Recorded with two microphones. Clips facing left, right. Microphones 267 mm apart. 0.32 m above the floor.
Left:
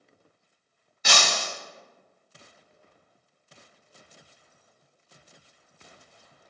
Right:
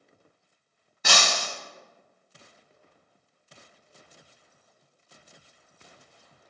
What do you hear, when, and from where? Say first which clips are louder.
1.0 s breaking glass: even; 60° right (ahead or behind), 1.3 m